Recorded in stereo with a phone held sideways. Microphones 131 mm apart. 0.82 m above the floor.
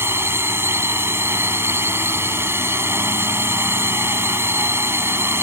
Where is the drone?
20° right (ahead or behind).